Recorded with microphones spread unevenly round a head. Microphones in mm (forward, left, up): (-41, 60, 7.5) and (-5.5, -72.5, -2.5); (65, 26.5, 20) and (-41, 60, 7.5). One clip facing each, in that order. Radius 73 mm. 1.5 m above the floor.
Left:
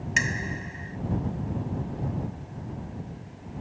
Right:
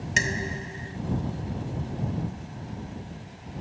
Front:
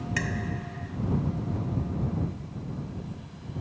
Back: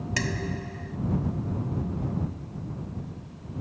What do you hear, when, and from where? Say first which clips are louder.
0.2 s dishes clattering: right 2 dB, back 3 dB; 125° right